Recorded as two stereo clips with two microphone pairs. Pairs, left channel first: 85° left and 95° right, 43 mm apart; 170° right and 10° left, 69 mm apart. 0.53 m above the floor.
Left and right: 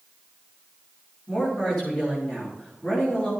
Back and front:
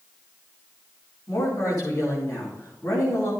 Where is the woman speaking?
140° left, 4.5 m.